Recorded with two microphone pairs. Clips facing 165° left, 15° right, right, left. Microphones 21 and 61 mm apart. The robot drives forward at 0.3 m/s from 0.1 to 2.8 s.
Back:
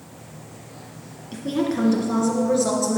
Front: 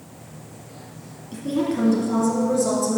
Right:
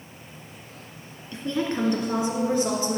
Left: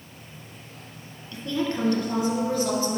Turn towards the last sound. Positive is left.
turn(degrees=-150)